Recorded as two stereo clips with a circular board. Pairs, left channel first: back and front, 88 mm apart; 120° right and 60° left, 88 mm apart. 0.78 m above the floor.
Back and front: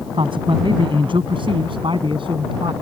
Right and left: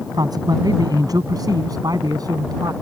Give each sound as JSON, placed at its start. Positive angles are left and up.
{"t": 0.1, "sound": "a man speaking", "azimuth_deg": 20}